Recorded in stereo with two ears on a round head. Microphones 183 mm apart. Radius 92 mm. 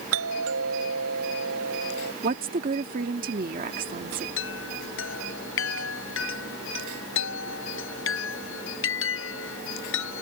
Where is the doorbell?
75° right (ahead or behind).